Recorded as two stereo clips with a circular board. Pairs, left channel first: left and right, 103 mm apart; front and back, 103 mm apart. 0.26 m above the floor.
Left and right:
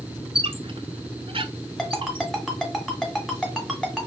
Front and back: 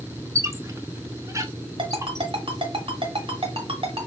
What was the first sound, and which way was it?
A squeak, 120° right.